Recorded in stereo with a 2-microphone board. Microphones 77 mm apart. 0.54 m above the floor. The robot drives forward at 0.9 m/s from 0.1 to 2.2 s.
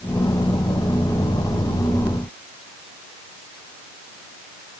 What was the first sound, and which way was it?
Only background noise.